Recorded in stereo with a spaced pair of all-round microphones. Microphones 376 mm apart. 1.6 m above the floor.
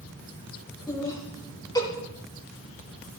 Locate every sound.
0.9 s laughter: 10° left (ahead or behind), 3 m